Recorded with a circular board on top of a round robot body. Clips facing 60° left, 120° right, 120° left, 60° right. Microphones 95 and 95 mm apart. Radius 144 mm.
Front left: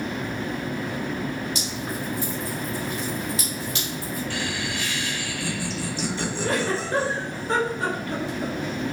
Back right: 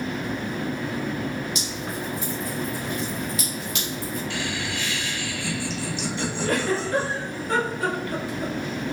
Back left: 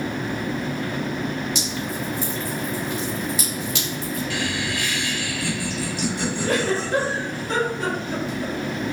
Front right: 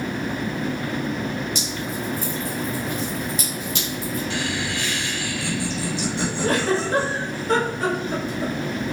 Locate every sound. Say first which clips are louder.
1.6 s dripping: front left 1 dB, back left 1 dB; 120° left, 1.5 m
4.3 s laughter: even, even; 5° left, 1.7 m
6.4 s a giggle: back right 1 dB, front right 2 dB; 5° right, 1.3 m